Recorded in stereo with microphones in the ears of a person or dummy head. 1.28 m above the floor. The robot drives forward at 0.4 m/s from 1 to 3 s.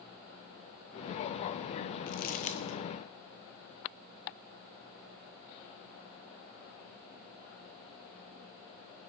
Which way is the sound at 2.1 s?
40° left (ahead or behind).